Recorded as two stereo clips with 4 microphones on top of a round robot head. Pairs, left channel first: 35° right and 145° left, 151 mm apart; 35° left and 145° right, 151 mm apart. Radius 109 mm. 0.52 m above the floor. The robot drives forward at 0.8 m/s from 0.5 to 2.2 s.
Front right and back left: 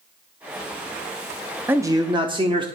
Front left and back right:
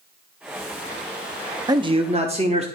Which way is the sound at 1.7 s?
155° right.